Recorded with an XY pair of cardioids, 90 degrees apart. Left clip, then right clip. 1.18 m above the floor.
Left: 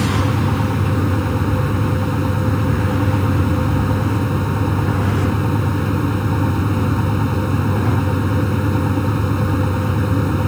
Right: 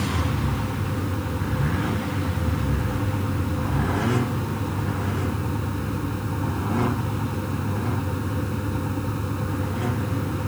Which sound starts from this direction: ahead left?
A fan, at 0.0 s.